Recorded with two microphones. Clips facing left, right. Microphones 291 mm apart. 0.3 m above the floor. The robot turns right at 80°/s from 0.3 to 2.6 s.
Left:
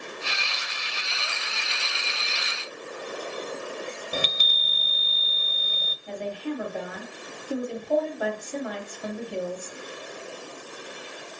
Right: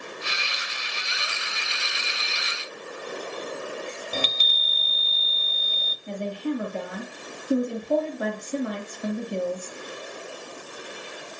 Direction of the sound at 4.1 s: 15° left (ahead or behind).